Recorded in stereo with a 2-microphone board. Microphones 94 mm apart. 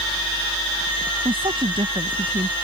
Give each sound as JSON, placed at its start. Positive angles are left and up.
{"t": 1.2, "sound": "a woman speaking", "side_deg": -65}